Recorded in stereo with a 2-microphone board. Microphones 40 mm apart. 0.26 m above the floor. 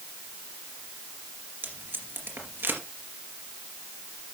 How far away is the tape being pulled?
About 2.5 m.